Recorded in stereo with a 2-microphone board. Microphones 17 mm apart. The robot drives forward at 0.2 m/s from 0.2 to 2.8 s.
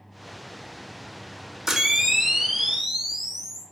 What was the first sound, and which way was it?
A camera shutter, 20° right (ahead or behind).